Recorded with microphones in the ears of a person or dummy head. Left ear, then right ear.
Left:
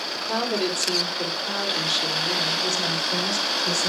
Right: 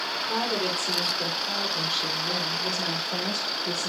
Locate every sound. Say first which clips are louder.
0.1 s a woman speaking: left 3 dB; 55° left (ahead or behind), 4 m; by 3.9 s 75° left (ahead or behind), 4 m